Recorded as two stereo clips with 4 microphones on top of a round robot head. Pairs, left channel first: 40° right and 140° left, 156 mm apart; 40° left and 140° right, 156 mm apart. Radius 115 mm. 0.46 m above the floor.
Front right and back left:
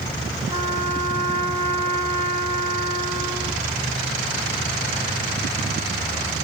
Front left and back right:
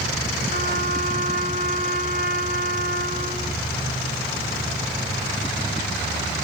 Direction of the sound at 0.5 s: 75° left.